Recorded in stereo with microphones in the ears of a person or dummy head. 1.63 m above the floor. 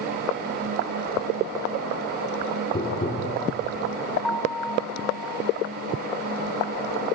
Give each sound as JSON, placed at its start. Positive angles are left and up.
{"t": 2.7, "sound": "tapping", "side_deg": 35, "distance_m": 4.0}
{"t": 4.2, "sound": "a piano", "side_deg": 0, "distance_m": 4.5}